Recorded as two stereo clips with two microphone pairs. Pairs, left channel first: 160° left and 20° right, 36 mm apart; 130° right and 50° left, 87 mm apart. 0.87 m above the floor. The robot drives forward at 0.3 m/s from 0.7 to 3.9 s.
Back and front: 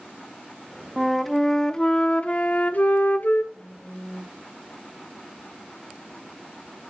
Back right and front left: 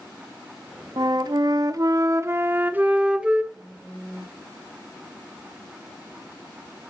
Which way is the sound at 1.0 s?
65° left.